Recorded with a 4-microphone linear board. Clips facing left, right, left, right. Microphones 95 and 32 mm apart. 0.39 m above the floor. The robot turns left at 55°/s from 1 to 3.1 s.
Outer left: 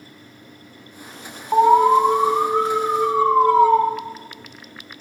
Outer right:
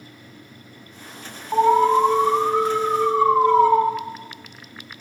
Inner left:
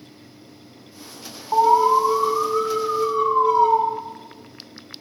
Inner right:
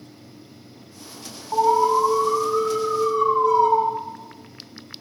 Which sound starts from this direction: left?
An alarm, at 1.5 s.